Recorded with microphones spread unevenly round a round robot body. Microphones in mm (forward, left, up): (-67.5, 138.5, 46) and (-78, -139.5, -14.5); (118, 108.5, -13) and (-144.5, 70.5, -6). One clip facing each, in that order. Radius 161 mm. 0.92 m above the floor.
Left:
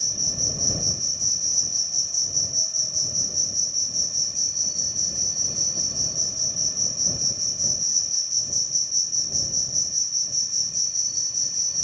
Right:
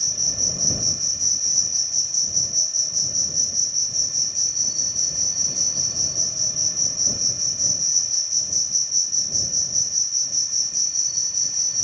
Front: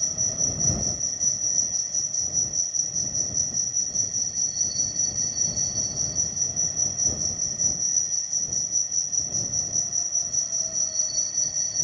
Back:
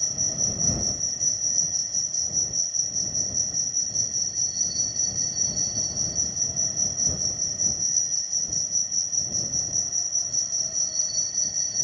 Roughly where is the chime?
I don't hear a chime.